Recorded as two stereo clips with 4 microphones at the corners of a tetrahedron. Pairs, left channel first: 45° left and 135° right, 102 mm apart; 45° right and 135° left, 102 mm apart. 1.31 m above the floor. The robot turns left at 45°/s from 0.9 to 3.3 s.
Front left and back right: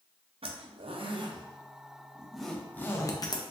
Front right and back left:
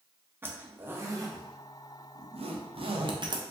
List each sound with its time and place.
0.4 s a zipper: 160° right, 0.6 m; by 3.4 s 95° left, 0.6 m